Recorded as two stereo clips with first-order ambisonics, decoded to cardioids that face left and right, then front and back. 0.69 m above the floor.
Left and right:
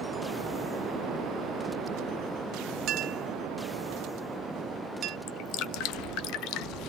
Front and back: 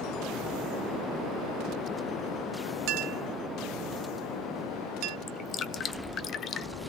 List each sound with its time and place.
2.9 s a clink: 145° right, 0.6 m
5.3 s dripping: 60° left, 0.9 m